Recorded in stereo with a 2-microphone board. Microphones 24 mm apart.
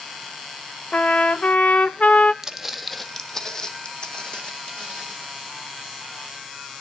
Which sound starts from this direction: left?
A trumpet, at 0.9 s.